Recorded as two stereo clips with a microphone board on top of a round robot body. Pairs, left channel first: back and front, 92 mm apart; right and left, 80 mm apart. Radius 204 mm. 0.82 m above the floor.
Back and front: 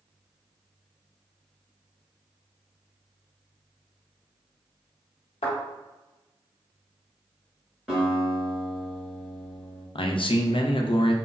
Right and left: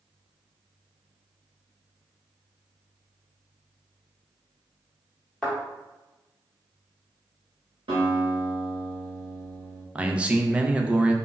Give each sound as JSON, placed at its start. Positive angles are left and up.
{"t": 5.4, "sound": "a thud", "azimuth_deg": -175, "distance_m": 0.9}
{"t": 7.9, "sound": "a guitar", "azimuth_deg": 90, "distance_m": 0.8}
{"t": 9.9, "sound": "a man speaking", "azimuth_deg": 165, "distance_m": 0.5}